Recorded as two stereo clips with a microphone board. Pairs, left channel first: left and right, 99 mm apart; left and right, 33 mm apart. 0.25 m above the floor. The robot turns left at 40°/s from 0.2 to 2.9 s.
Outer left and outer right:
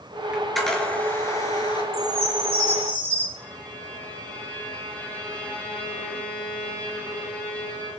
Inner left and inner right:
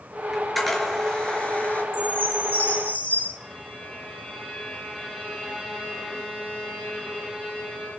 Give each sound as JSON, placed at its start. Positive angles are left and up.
{"t": 0.3, "sound": "a camera shutter", "side_deg": -10, "distance_m": 4.0}
{"t": 1.9, "sound": "a chime", "azimuth_deg": 105, "distance_m": 9.0}
{"t": 3.4, "sound": "a violin", "side_deg": 10, "distance_m": 8.0}